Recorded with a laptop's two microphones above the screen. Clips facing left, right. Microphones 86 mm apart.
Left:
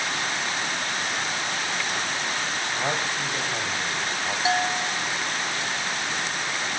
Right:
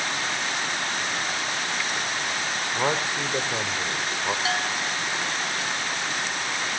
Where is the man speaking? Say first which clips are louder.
Right 4 dB; 80° right, 3.5 m.